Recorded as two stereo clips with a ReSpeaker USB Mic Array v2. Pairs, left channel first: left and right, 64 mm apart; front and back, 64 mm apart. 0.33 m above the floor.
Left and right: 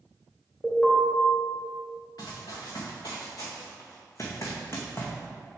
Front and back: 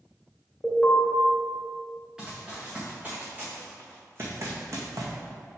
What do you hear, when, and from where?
0.6 s an alarm: 55° left, 1.9 m
2.2 s running footsteps: 105° left, 2.5 m; by 5.1 s 150° left, 1.6 m